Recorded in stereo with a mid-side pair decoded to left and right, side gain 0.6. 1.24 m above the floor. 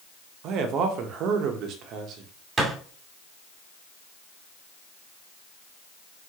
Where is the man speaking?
60° right, 1.1 m.